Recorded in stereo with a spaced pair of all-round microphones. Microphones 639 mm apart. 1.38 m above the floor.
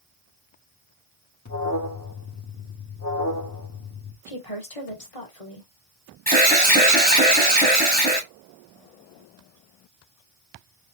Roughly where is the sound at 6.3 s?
Centre.